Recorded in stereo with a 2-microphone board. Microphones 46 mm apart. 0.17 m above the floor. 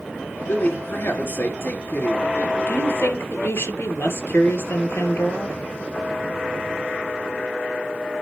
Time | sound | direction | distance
0.5 | a man speaking | 55° left (ahead or behind) | 2.5 m
2.7 | a woman speaking | 70° left (ahead or behind) | 3 m